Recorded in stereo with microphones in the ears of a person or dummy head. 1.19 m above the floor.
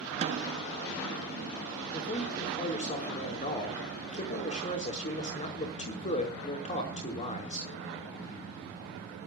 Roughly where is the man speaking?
Left.